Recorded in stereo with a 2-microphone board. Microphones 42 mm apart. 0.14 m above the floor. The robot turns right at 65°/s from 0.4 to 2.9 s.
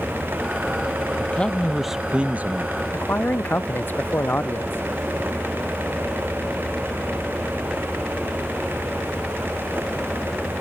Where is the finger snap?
No finger snap in this recording.